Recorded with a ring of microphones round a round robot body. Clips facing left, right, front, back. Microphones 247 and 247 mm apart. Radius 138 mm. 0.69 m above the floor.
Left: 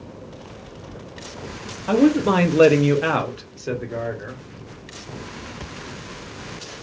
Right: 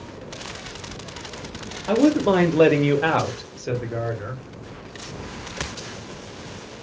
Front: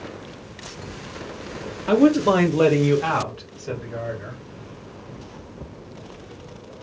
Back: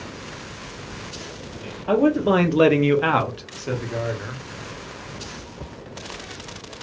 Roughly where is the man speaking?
Ahead.